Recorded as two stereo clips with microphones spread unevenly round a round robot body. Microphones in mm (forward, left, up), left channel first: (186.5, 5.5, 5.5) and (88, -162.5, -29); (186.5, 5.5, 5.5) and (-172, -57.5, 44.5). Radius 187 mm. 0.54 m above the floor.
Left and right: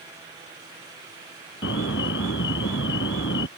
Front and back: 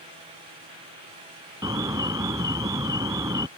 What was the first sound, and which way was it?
An alarm, 110° left.